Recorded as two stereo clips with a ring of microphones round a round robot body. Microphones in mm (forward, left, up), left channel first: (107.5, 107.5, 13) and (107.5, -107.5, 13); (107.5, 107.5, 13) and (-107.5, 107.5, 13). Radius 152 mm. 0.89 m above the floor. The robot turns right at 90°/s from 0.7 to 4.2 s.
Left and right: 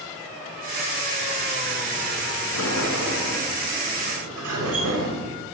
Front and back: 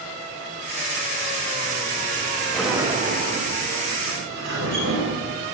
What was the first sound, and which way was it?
A sliding door, 85° left.